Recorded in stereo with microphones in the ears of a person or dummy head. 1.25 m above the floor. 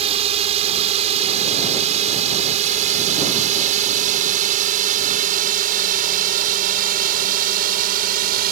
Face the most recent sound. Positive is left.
turn(degrees=-45)  # may be behind; listen again after turning